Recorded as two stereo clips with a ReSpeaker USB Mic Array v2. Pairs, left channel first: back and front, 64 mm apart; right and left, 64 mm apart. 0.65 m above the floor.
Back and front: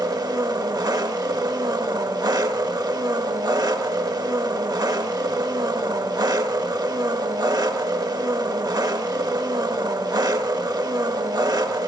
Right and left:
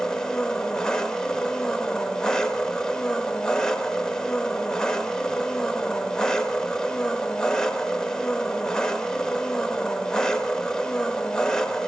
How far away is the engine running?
About 0.8 m.